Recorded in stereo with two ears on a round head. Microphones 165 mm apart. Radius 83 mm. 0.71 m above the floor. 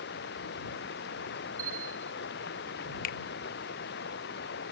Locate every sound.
0.0 s running water: 65° left (ahead or behind)
1.6 s a bell: 20° right (ahead or behind)
3.0 s a finger snap: 50° left (ahead or behind)